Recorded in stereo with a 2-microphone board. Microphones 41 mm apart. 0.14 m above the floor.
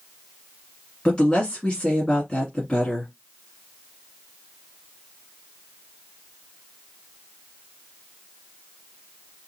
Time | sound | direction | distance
1.1 | a woman speaking | 25° left (ahead or behind) | 1.5 m